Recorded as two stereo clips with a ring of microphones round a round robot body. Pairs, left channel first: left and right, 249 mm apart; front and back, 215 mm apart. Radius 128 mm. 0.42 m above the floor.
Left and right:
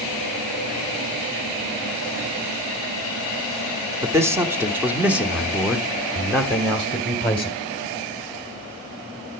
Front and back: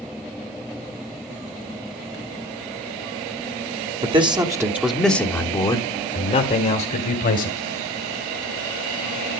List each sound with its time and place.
4.0 s a man speaking: 155° right, 1.3 m; by 7.6 s 5° left, 1.8 m